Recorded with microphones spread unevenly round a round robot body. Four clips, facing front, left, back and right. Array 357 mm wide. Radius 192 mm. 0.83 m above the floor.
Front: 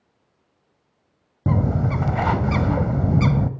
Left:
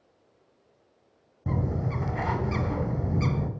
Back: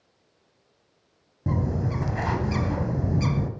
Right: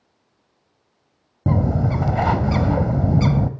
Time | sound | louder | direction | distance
1.5 | a bird | right 9 dB, front 5 dB | 40° right | 1.0 m